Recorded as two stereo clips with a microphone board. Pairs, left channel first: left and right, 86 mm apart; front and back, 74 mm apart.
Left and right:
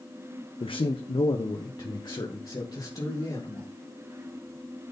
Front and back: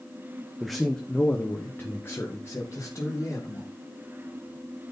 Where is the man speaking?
95° left, 0.9 m; by 3.7 s 45° left, 3 m.